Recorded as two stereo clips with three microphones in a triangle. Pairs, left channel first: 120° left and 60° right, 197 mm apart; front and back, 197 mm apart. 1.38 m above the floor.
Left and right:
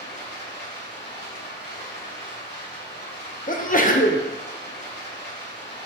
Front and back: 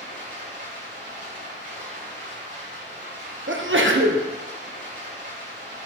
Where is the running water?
155° left, 3 m.